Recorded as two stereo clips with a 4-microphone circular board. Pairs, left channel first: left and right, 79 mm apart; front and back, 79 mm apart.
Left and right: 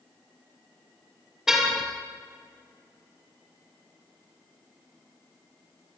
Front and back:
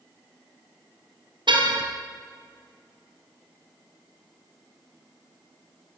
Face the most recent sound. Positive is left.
turn(degrees=-175)